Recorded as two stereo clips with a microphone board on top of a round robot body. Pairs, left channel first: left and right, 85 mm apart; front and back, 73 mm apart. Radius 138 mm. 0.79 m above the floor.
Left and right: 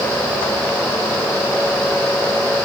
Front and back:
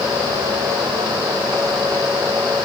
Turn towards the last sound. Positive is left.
No sound to turn to.